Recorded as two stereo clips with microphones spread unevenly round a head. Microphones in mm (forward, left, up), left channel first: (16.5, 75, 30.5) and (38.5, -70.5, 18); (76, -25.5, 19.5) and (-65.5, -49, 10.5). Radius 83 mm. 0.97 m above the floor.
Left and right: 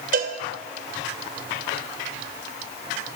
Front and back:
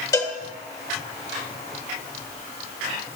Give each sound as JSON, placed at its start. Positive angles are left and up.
{"t": 0.1, "sound": "a cowbell", "azimuth_deg": -55, "distance_m": 2.5}